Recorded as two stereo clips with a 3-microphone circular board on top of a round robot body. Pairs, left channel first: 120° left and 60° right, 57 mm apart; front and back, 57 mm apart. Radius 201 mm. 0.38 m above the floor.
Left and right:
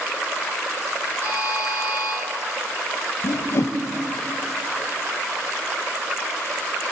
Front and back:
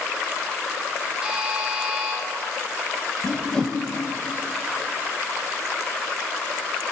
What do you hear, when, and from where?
1.2 s a buzzer: 105° right, 3.5 m
3.2 s a whoosh: 80° left, 0.8 m